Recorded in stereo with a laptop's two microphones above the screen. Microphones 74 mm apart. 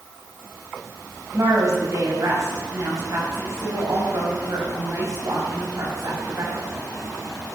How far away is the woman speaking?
About 5 m.